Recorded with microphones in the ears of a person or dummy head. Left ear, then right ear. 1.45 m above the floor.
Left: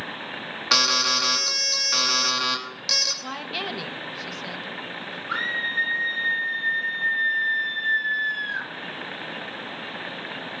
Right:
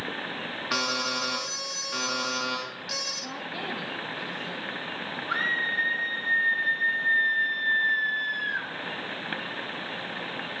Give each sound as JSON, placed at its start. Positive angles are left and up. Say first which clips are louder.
{"t": 0.7, "sound": "an alarm", "louder": "left 9 dB", "side_deg": 45, "distance_m": 3.0}
{"t": 3.2, "sound": "a woman speaking", "louder": "left 4 dB", "side_deg": 55, "distance_m": 1.6}
{"t": 5.3, "sound": "a scream", "louder": "left 1 dB", "side_deg": 5, "distance_m": 2.0}